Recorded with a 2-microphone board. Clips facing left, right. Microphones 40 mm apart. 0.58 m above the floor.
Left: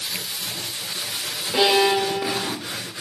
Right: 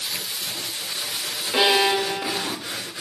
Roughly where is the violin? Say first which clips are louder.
Left 1 dB; right.